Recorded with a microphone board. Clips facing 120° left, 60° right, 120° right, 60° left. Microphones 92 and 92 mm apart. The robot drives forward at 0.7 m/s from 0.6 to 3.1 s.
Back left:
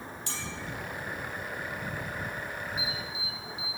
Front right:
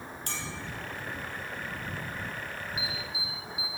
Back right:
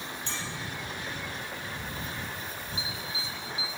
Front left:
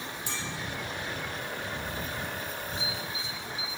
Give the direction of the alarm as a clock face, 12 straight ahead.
11 o'clock.